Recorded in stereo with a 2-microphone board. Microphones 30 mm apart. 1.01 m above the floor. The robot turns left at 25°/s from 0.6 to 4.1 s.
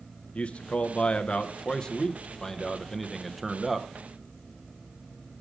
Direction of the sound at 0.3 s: 70° left.